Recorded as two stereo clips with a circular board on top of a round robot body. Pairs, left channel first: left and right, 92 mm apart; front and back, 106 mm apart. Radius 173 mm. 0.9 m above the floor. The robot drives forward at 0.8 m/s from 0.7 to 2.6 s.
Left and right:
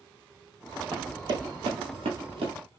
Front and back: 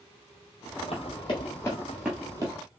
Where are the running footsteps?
30° right, 1.9 m; by 2.5 s 125° right, 1.6 m.